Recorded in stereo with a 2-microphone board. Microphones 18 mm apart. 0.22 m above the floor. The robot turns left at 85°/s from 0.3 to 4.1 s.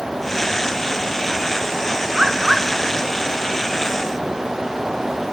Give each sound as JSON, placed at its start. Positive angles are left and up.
{"t": 2.1, "sound": "a bird", "azimuth_deg": -140, "distance_m": 1.2}